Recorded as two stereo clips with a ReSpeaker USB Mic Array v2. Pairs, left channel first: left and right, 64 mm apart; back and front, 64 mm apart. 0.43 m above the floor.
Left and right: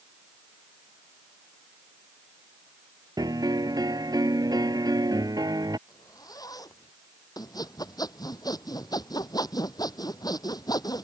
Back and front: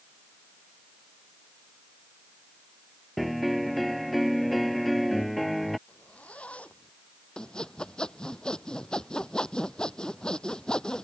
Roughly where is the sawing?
Left.